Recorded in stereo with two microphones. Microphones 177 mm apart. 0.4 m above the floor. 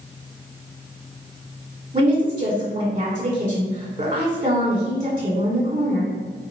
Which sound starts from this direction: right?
A woman speaking, at 1.9 s.